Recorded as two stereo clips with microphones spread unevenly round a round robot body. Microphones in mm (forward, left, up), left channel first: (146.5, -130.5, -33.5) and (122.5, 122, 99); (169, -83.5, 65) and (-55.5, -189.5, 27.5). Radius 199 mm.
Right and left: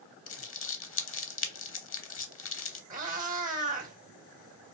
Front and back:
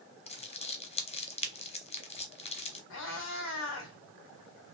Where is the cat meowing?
70° left, 0.8 m.